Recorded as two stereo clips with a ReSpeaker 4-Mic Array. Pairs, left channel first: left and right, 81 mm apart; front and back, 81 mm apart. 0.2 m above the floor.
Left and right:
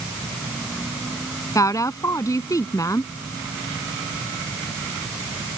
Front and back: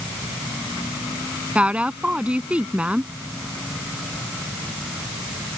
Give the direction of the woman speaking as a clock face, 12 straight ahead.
8 o'clock.